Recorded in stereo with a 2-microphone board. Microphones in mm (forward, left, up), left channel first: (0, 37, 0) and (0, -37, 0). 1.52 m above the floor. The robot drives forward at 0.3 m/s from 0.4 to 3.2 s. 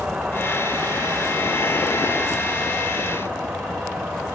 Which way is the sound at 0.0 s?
10° right (ahead or behind).